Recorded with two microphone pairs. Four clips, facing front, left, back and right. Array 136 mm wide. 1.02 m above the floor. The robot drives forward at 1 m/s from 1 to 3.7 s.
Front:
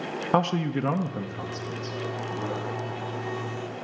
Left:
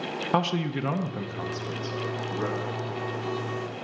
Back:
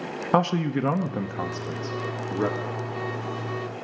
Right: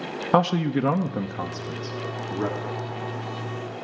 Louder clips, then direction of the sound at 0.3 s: Right 6 dB, back 2 dB; 115° right.